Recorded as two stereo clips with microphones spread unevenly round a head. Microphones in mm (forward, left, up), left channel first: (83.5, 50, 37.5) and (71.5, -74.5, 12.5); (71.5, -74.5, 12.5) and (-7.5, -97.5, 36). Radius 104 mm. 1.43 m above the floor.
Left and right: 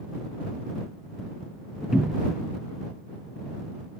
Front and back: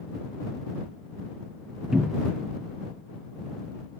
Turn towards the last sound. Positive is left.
turn(degrees=160)